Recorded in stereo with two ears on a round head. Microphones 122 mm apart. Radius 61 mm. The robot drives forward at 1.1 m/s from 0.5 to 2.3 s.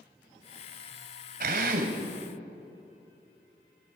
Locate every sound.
1.4 s a drill: 70° right (ahead or behind), 3 m; by 2.0 s 75° right (ahead or behind), 3 m